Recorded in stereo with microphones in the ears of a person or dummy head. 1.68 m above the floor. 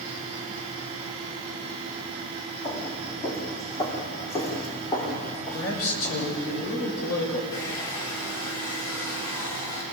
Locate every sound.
2.6 s footsteps: 30° left (ahead or behind), 5 m
5.5 s a man speaking: 85° left, 6.5 m
7.5 s a hair dryer: 80° left, 5.5 m